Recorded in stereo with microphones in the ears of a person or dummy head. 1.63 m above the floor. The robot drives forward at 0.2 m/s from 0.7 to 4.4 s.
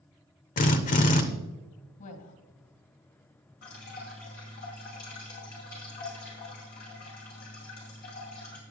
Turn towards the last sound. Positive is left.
turn(degrees=50)  # may be behind; listen again after turning